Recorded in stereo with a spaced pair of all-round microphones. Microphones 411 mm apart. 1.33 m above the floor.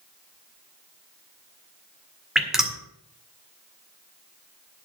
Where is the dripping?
Centre (ahead or behind), 1.8 m.